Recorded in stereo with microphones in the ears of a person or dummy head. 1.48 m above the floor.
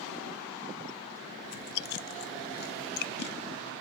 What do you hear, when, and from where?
1.4 s chewing: 55° left (ahead or behind), 0.5 m